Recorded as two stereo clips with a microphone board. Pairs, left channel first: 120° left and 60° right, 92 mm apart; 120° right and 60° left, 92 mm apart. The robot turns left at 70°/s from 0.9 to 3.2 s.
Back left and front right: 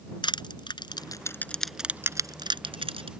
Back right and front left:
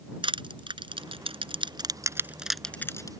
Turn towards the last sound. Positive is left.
turn(degrees=-75)